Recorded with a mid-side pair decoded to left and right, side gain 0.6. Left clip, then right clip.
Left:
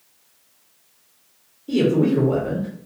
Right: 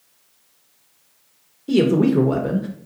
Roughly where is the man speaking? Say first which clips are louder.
Right 2 dB; ahead right.